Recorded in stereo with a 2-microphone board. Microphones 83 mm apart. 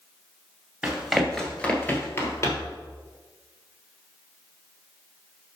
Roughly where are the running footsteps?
Centre.